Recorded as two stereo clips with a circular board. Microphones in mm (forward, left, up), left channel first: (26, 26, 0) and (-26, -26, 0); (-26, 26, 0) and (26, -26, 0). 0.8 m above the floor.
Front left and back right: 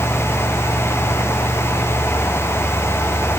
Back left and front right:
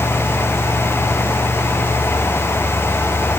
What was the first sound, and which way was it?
Only background noise.